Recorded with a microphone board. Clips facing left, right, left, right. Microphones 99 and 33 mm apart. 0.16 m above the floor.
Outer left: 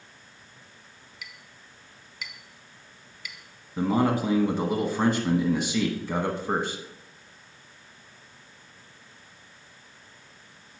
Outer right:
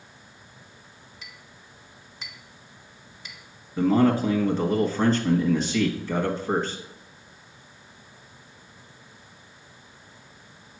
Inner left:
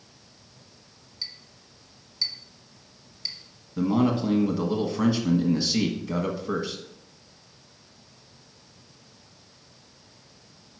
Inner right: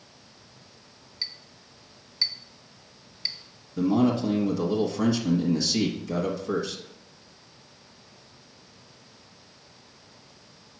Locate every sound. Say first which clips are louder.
1.2 s a clink: outer left 3 dB, inner right 2 dB; 30° right (ahead or behind), 1.2 m
3.8 s a man speaking: outer right 4 dB, inner right 1 dB; 15° left (ahead or behind), 1.0 m